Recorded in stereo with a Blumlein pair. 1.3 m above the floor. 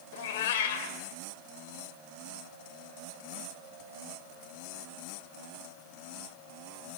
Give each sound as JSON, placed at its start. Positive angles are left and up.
{"t": 0.1, "sound": "a cat meowing", "azimuth_deg": 55, "distance_m": 2.5}